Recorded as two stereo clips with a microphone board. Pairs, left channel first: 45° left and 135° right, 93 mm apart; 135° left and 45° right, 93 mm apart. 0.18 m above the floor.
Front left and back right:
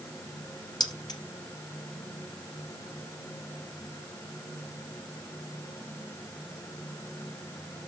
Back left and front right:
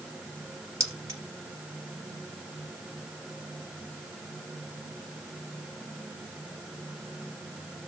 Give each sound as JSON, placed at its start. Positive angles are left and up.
{"t": 0.8, "sound": "keys jangling", "azimuth_deg": 5, "distance_m": 2.5}